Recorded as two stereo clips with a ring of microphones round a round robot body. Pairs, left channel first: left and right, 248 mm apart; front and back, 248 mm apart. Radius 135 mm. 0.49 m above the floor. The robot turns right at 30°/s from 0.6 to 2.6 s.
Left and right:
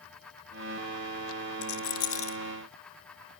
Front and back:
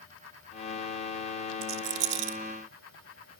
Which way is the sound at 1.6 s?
140° left.